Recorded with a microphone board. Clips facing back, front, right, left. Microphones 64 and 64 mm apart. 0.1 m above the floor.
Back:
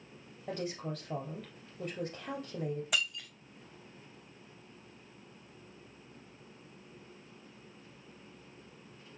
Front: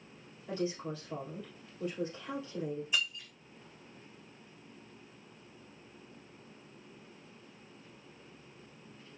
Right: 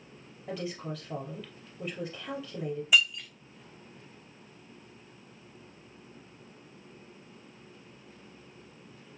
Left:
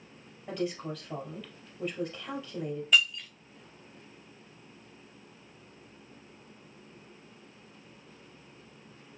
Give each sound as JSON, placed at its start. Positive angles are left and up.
{"t": 0.5, "sound": "a woman speaking", "azimuth_deg": -175, "distance_m": 3.0}
{"t": 2.9, "sound": "breaking glass", "azimuth_deg": -170, "distance_m": 2.5}